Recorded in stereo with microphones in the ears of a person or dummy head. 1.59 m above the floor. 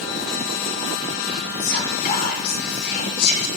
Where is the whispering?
55° left (ahead or behind), 6.5 m.